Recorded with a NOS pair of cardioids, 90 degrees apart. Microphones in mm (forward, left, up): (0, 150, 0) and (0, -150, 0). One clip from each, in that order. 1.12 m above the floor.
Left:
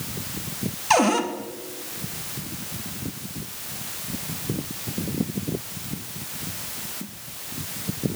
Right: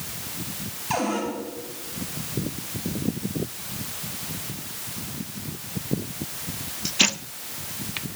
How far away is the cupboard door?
About 1.0 m.